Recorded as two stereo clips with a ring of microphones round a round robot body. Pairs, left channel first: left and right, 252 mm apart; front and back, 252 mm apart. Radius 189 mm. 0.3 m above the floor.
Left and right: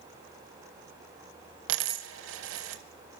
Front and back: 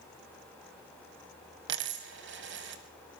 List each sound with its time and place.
1.7 s a dropped coin: 130° right, 0.6 m